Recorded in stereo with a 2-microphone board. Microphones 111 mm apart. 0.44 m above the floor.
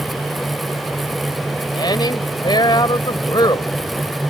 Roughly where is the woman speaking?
Left.